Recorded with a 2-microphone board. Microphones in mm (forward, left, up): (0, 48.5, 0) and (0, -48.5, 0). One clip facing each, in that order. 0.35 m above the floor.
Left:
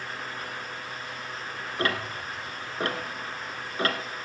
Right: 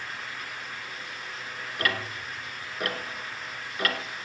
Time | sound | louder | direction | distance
1.8 | ticking | left 2 dB | 30° left (ahead or behind) | 1.3 m